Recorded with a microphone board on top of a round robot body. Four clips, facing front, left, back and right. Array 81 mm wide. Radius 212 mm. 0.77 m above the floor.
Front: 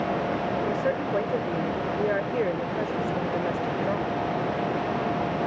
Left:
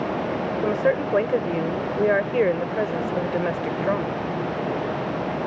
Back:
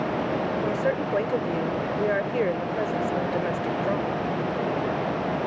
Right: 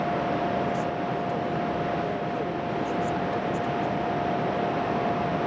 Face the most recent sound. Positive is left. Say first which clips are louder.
# left 6 dB, back 1 dB
turn(degrees=95)